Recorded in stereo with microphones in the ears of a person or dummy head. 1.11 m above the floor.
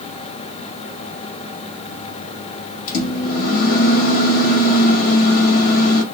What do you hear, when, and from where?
2.9 s a microwave: 50° left (ahead or behind), 1.0 m